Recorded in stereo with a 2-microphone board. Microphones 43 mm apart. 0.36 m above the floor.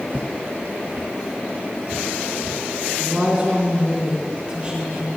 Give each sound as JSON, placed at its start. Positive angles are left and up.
{"t": 0.1, "sound": "footsteps", "side_deg": -55, "distance_m": 0.9}
{"t": 3.0, "sound": "a woman speaking", "side_deg": -25, "distance_m": 3.0}